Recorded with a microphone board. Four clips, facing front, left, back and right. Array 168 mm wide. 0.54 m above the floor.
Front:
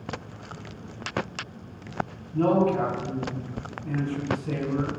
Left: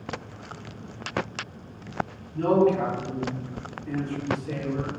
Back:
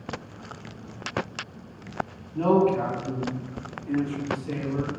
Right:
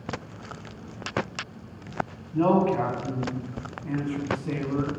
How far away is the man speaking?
About 3 m.